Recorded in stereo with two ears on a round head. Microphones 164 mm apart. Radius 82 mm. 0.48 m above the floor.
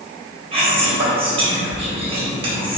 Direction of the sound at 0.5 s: 30° right (ahead or behind).